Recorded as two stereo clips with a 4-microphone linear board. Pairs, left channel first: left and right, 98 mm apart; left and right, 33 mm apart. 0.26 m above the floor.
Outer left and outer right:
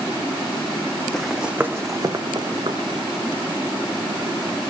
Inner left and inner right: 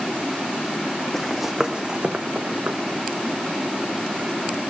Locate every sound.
1.1 s running footsteps: 10° left (ahead or behind), 0.6 m; by 3.0 s 65° right (ahead or behind), 1.2 m